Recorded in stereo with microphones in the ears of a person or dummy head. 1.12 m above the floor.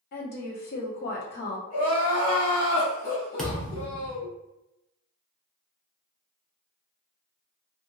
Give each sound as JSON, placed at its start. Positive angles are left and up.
{"t": 0.1, "sound": "a woman speaking", "side_deg": 45, "distance_m": 0.9}
{"t": 1.7, "sound": "crying", "side_deg": 35, "distance_m": 1.3}
{"t": 3.4, "sound": "a thud", "side_deg": 5, "distance_m": 0.8}